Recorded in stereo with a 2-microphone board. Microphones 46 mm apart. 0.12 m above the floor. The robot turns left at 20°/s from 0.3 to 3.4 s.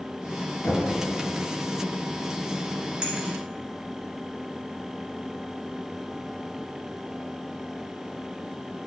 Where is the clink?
15° right (ahead or behind), 1.2 m.